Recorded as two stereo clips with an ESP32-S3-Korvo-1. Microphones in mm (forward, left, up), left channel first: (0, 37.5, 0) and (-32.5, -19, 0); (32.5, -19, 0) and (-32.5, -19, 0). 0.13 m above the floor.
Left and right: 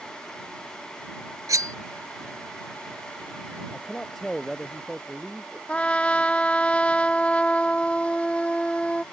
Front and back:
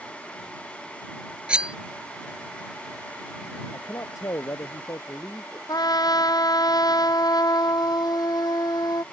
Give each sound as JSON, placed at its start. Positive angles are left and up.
{"t": 1.5, "sound": "cutlery clinking", "azimuth_deg": -110}
{"t": 3.7, "sound": "a man speaking", "azimuth_deg": -25}
{"t": 5.7, "sound": "a trumpet", "azimuth_deg": -15}